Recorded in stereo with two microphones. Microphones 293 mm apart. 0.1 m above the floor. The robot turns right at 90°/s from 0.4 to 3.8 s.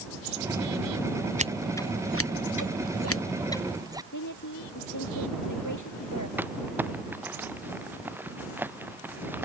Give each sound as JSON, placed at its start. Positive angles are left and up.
{"t": 1.4, "sound": "scissors", "side_deg": -25}
{"t": 4.1, "sound": "a woman speaking", "side_deg": 80}
{"t": 6.4, "sound": "crumpling", "side_deg": -5}